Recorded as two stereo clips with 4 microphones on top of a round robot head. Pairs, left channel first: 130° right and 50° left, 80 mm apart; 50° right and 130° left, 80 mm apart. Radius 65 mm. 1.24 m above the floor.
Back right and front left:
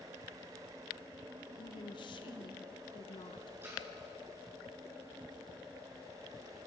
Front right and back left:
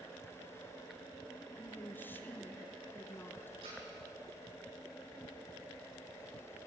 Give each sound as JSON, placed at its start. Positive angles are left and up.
{"t": 1.6, "sound": "a woman speaking", "azimuth_deg": -115, "distance_m": 1.5}
{"t": 3.6, "sound": "a splash", "azimuth_deg": 115, "distance_m": 8.5}